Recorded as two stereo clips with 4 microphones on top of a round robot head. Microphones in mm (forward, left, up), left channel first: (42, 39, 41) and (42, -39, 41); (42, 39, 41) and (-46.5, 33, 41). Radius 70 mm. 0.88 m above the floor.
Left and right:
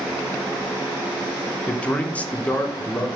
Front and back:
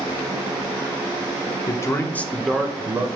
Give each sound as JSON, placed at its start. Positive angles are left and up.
{"t": 1.7, "sound": "a man speaking", "azimuth_deg": 20, "distance_m": 0.7}